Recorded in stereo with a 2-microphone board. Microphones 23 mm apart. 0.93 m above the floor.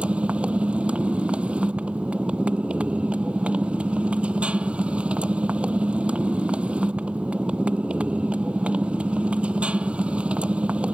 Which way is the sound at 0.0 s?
55° right (ahead or behind).